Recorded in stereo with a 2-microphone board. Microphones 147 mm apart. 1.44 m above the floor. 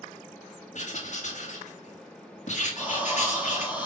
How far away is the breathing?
About 1.9 m.